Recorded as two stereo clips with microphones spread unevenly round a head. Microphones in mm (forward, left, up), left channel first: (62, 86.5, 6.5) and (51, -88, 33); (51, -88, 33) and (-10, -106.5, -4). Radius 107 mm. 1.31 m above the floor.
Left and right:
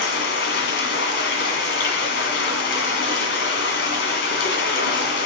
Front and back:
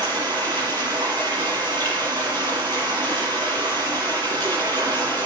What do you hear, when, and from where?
0.0 s running water: 120° left, 1.9 m